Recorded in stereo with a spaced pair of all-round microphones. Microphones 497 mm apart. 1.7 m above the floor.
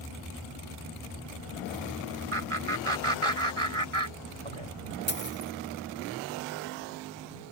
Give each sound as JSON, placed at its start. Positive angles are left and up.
{"t": 2.3, "sound": "laughter", "side_deg": -85}
{"t": 5.1, "sound": "a dropped coin", "side_deg": 20}